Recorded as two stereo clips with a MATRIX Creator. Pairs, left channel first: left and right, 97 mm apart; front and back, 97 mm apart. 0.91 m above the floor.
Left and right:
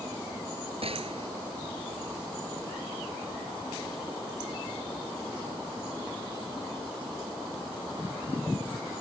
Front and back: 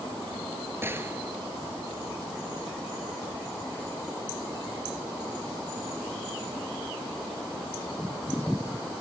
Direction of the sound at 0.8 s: 115° right.